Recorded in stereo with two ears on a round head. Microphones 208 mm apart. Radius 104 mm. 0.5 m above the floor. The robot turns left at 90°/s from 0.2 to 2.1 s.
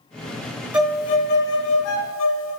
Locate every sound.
0.7 s a violin: 175° right, 0.5 m; by 2.6 s 65° left, 0.5 m